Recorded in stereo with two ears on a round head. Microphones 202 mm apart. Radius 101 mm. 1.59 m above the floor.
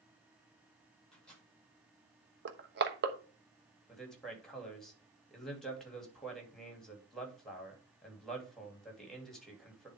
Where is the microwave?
5° left (ahead or behind), 6 m.